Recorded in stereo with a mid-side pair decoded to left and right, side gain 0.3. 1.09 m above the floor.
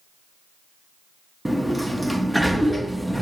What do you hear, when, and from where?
1.4 s a sliding door: 10° right, 1.0 m